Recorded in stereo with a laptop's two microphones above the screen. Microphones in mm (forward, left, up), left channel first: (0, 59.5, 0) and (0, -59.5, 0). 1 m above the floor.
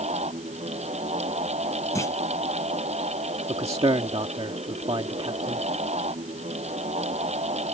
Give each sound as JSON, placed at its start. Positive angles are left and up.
{"t": 0.0, "sound": "a fan", "side_deg": -65}
{"t": 1.9, "sound": "a clunk", "side_deg": 25}
{"t": 3.5, "sound": "a man speaking", "side_deg": -55}